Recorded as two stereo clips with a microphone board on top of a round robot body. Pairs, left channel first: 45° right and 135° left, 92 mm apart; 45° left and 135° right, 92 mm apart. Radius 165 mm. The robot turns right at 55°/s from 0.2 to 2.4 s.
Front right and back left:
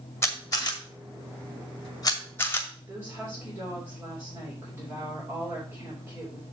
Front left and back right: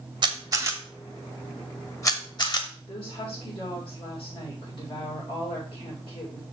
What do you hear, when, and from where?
0.2 s a camera shutter: 105° right, 1.7 m; by 2.6 s 15° left, 1.7 m
2.8 s a woman speaking: 75° left, 3.5 m